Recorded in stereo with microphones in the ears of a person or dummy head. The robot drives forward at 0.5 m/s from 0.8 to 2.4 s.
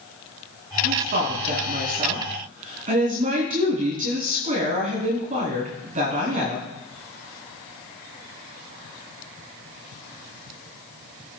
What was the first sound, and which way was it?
A woman speaking, 50° right (ahead or behind).